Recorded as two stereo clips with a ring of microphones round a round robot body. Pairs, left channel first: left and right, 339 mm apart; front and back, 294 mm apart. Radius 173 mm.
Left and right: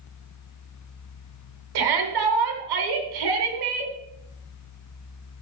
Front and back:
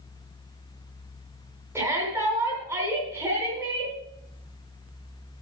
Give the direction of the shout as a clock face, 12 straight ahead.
3 o'clock.